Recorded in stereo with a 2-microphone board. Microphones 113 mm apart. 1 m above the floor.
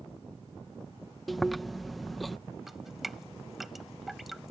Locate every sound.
1.3 s chewing: centre (ahead or behind)
2.7 s dripping: centre (ahead or behind)